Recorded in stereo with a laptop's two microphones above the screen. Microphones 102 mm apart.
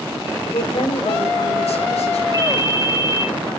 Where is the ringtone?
35° right (ahead or behind), 1.5 m.